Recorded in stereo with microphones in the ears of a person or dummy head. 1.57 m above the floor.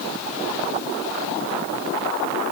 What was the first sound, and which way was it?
Only background noise.